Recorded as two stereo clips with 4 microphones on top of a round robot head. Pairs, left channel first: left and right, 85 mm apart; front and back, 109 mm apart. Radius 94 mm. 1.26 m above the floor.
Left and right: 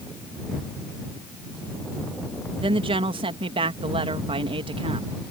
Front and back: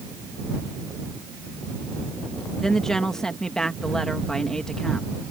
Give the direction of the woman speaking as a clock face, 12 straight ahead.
3 o'clock.